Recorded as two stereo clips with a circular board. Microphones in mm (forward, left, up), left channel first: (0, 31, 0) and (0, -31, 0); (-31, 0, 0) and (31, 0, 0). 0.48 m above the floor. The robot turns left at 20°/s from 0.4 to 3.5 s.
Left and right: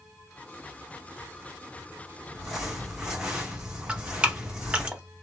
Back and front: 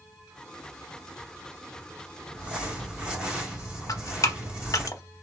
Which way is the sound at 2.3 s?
15° right.